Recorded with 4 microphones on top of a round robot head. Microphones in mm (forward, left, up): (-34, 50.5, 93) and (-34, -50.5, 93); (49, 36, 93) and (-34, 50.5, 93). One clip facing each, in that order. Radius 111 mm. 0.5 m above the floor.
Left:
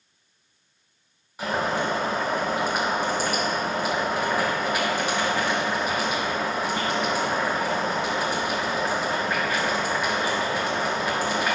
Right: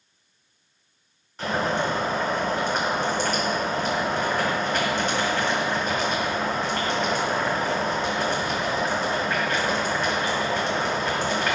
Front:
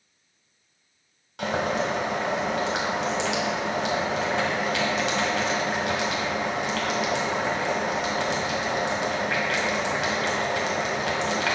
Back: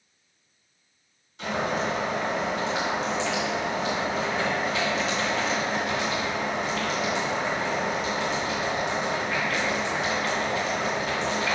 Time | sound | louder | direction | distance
1.4 | boiling | right 1 dB, front 2 dB | 10° left | 1.7 m